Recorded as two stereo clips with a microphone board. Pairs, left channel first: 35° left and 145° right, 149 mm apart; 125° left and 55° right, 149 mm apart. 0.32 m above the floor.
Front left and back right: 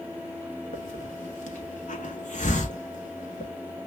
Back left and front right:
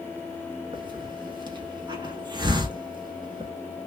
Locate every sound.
0.7 s a hiss: 5° left, 0.9 m